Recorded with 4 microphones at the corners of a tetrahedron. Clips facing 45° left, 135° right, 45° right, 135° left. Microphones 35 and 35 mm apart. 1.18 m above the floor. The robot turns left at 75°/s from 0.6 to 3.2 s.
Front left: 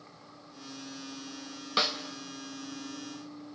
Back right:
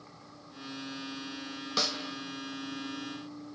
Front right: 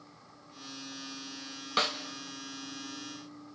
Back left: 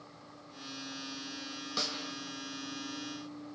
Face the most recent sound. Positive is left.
turn(degrees=-115)